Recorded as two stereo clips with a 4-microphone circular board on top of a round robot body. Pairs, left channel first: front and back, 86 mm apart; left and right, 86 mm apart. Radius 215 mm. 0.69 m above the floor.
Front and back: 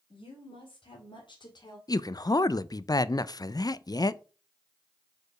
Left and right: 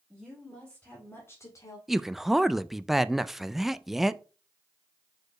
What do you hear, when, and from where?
0.1 s a woman speaking: straight ahead, 3 m; by 1.8 s 45° left, 2 m
1.9 s a man speaking: 5° right, 0.6 m